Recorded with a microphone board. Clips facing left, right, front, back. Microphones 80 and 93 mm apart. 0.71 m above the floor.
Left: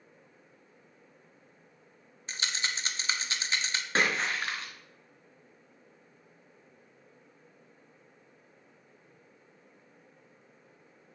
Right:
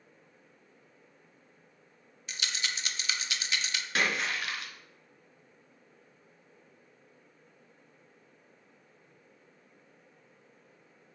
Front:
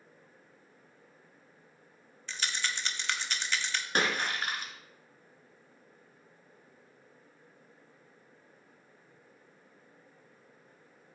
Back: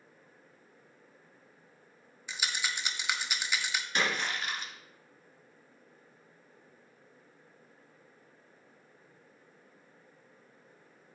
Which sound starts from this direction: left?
A rattle, at 2.3 s.